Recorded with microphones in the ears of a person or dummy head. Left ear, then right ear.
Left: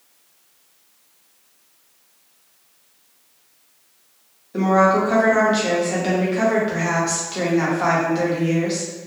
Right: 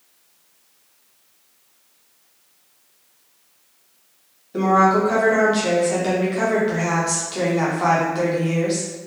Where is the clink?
No clink in this recording.